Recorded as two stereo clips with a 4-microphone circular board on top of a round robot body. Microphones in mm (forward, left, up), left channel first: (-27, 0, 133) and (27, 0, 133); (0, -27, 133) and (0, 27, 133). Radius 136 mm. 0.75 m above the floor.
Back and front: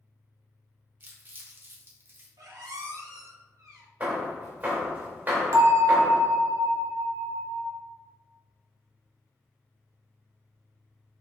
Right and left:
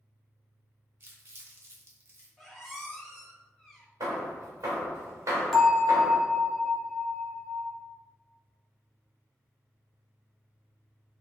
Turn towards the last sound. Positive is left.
turn(degrees=0)